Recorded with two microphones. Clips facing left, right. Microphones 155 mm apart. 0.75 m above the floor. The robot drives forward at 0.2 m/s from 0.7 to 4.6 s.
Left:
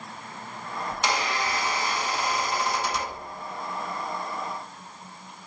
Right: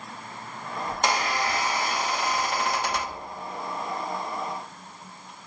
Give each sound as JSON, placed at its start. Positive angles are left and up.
{"t": 0.9, "sound": "a squeak", "side_deg": -45, "distance_m": 0.9}